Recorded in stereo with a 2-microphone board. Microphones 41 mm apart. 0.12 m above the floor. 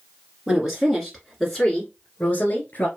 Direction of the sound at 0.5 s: 20° right (ahead or behind).